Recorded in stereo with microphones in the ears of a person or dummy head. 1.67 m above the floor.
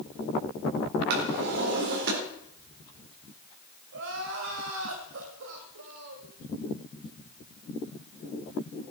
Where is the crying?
50° right (ahead or behind), 2 m.